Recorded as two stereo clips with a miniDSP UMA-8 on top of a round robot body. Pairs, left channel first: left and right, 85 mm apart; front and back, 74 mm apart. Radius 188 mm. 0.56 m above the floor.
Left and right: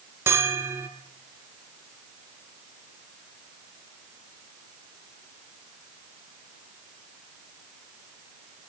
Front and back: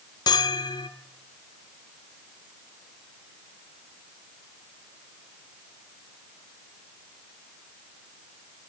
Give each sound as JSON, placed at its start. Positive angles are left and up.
{"t": 0.3, "sound": "a bell", "azimuth_deg": -25, "distance_m": 0.6}